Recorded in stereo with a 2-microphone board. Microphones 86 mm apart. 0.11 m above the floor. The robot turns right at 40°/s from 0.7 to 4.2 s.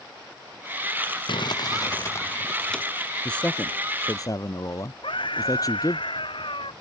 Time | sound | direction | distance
1.3 | crumpling | 115° left | ?
3.2 | a man speaking | 10° left | ?
5.0 | a scream | 75° left (ahead or behind) | ?